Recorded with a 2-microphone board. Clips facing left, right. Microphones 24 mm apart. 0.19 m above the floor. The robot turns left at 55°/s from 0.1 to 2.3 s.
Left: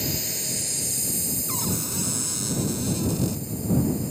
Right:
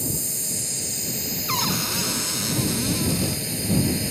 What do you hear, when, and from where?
0.0 s a drone: 35° left; by 4.1 s 90° right
1.5 s a cupboard door: 95° right; by 3.5 s 140° right